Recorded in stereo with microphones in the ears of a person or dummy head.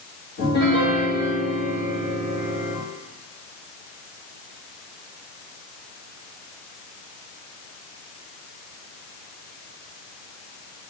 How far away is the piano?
About 3.5 m.